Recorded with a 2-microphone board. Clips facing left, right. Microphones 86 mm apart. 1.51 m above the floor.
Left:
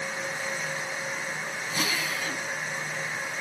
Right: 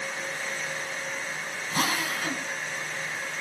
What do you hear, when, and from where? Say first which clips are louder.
1.7 s a drill: right 3 dB; 50° right (ahead or behind), 6 m